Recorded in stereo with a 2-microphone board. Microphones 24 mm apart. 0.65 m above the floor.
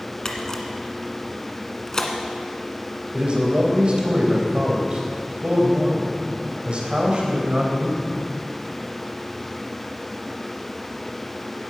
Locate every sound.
0.2 s a camera shutter: 25° left (ahead or behind), 1.6 m
3.1 s a man speaking: 50° right (ahead or behind), 3.5 m